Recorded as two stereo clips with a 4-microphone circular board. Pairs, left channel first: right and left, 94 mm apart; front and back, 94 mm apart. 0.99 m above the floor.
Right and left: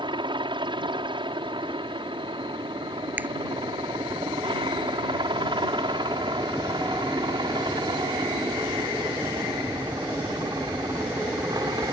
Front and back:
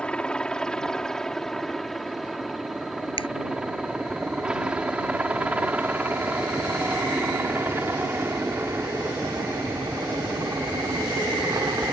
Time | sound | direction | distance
0.0 | a helicopter | 80° left | ?
3.2 | a finger snap | 15° left | ?